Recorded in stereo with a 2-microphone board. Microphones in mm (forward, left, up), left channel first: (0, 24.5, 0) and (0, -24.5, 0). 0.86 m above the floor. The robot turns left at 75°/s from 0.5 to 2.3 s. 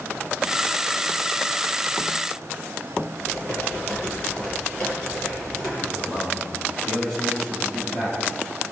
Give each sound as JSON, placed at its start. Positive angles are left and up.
{"t": 3.2, "sound": "typing on a keyboard", "side_deg": 20, "distance_m": 8.5}
{"t": 5.8, "sound": "a man speaking", "side_deg": 15, "distance_m": 7.5}